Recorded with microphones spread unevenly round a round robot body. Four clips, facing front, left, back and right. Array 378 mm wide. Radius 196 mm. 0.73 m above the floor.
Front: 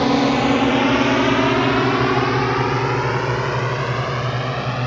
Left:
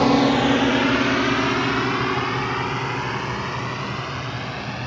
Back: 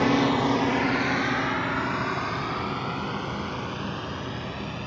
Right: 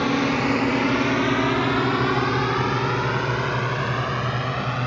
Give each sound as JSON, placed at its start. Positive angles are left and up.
{"t": 0.0, "sound": "a drone", "azimuth_deg": 50}